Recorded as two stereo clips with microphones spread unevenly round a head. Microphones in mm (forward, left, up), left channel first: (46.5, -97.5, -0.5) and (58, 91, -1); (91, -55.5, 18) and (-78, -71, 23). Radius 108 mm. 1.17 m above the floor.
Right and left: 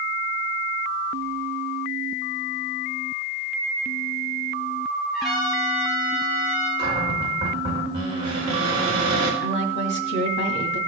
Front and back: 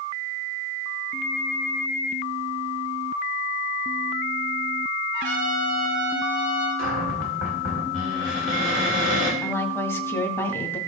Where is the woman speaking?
70° right, 2 m.